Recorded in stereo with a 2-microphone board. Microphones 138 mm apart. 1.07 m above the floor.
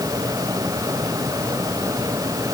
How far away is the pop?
I don't hear a pop.